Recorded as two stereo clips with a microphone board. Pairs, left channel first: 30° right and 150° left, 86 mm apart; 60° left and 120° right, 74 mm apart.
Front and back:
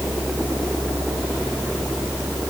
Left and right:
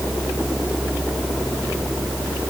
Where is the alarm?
I don't hear an alarm.